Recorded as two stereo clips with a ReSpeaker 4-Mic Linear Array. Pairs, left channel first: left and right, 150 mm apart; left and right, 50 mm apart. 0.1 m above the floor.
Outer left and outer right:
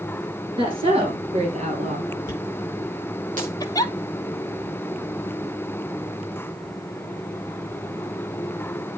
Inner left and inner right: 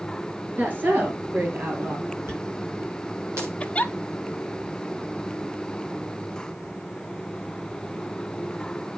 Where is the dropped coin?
60° right (ahead or behind), 5 m.